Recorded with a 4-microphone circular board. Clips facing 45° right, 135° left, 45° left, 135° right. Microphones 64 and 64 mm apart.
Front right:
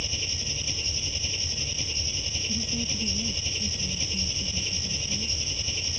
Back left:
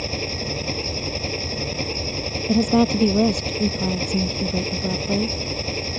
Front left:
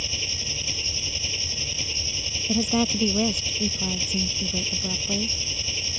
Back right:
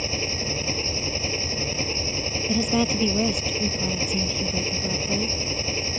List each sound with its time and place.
0.0 s an engine running: 175° left
2.5 s a woman speaking: 135° left